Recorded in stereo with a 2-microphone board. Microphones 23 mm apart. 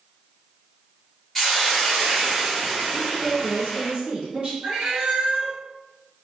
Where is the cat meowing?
50° right (ahead or behind), 1.2 m.